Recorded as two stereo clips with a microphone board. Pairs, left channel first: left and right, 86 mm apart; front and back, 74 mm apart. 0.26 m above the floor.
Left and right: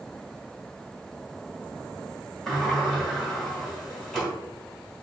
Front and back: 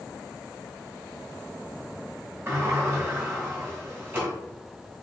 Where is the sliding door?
170° left, 1.6 m.